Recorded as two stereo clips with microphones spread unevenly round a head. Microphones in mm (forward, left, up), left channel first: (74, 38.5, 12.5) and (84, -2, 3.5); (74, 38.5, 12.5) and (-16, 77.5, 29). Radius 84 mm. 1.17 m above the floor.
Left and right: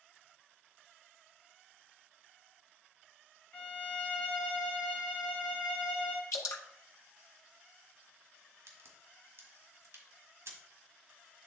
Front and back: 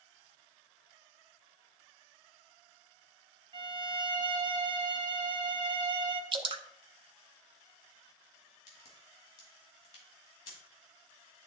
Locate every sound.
3.5 s a violin: 155° left, 0.7 m
6.3 s dripping: 125° left, 0.7 m
8.7 s a crack: 85° right, 1.8 m